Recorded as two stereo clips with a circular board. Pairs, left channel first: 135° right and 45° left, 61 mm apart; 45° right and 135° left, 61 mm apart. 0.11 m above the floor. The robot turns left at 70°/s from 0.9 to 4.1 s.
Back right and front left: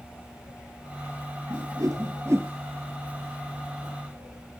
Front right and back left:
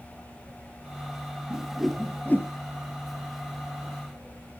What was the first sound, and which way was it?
A whoosh, 70° left.